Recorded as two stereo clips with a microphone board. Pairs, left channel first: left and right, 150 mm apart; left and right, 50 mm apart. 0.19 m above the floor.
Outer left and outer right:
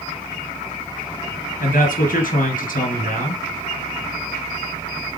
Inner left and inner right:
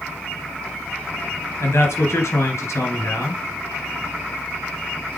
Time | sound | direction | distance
1.6 | a man speaking | 65° left (ahead or behind) | 3 m